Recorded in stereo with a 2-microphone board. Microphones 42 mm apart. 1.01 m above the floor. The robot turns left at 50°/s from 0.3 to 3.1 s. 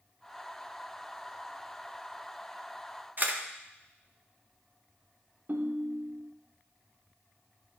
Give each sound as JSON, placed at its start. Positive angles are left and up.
{"t": 3.2, "sound": "a camera shutter", "side_deg": -45, "distance_m": 0.9}
{"t": 5.5, "sound": "a ringtone", "side_deg": -50, "distance_m": 0.8}